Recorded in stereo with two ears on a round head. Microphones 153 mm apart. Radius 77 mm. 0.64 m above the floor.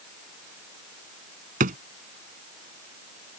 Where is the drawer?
50° right (ahead or behind).